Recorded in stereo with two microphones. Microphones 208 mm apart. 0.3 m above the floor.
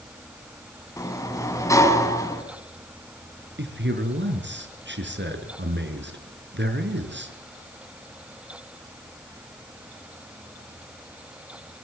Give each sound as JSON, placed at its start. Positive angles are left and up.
{"t": 1.0, "sound": "a sliding door", "side_deg": 15, "distance_m": 3.0}
{"t": 3.6, "sound": "a man speaking", "side_deg": -55, "distance_m": 5.0}